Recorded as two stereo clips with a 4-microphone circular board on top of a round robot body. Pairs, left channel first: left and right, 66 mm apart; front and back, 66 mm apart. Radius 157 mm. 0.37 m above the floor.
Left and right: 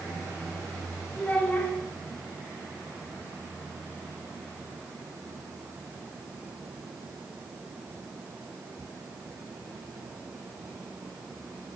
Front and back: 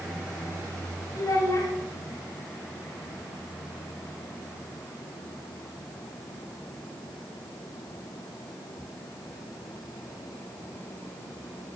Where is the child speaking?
25° left, 1.9 m.